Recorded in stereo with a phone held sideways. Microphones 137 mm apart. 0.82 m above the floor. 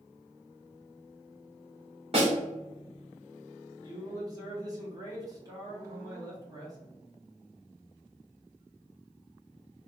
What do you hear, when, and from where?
2.1 s a snare drum: 45° right (ahead or behind), 1.6 m
3.8 s a man speaking: 25° right (ahead or behind), 1.2 m